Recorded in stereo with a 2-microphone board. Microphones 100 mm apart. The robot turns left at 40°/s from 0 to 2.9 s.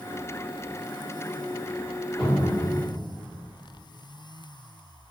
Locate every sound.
2.2 s a cupboard door: 5° left (ahead or behind), 1.2 m; by 2.6 s 15° left (ahead or behind), 1.2 m